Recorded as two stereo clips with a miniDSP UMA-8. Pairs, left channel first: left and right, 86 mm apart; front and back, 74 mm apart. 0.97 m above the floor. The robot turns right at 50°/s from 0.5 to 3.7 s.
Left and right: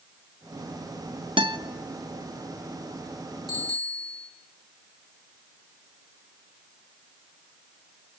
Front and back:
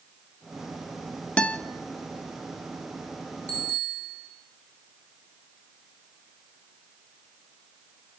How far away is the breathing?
I don't hear breathing.